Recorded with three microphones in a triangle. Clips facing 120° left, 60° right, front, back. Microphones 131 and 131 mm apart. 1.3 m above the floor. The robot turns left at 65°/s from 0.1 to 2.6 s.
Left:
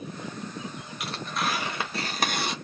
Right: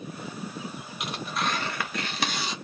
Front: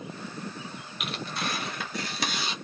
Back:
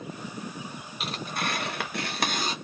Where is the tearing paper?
125° right, 0.9 m; by 2.5 s 135° left, 0.9 m.